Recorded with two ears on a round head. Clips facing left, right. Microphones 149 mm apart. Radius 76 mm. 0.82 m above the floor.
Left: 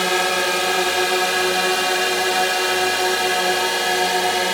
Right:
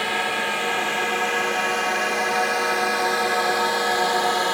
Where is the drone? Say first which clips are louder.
Left 6 dB; 55° left (ahead or behind); by 4.5 s 25° left (ahead or behind).